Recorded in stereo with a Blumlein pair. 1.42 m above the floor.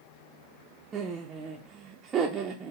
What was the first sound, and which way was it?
Laughter, 25° right.